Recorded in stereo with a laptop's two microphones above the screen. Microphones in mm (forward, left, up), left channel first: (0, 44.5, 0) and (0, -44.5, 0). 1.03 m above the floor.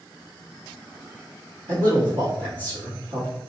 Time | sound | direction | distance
1.7 | a man speaking | 60° right (ahead or behind) | 1.3 m